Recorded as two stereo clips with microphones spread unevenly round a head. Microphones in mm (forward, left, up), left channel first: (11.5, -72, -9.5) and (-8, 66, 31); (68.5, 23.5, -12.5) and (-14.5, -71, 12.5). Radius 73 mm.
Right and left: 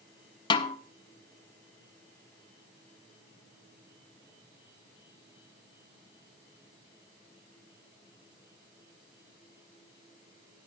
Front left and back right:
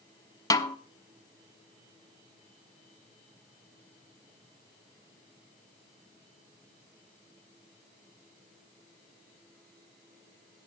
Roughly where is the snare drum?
Ahead.